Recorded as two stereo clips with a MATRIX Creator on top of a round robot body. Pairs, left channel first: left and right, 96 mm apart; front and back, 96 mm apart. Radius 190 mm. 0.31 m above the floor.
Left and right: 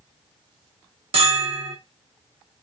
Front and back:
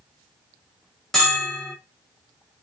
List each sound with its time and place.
1.1 s a bell: 85° right, 1.5 m